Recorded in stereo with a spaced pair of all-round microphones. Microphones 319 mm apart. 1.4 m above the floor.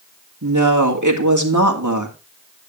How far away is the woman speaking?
About 2.0 m.